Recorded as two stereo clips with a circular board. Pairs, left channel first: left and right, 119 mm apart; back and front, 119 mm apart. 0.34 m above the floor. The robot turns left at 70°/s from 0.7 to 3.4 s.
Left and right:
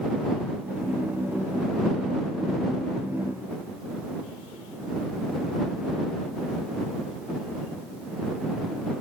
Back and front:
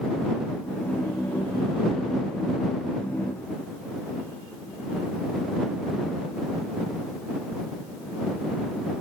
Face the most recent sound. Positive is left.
No sound to turn to.